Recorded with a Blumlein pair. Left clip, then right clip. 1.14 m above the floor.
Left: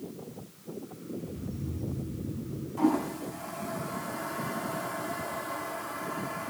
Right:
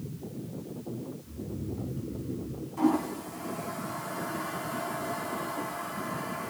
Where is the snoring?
5° right, 5 m.